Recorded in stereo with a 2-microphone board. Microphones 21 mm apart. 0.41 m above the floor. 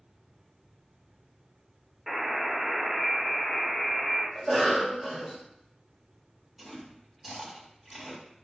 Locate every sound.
2.1 s a buzzer: 10° right (ahead or behind), 0.9 m
4.3 s a cough: 20° right (ahead or behind), 1.1 m
6.6 s chewing: 20° right (ahead or behind), 1.5 m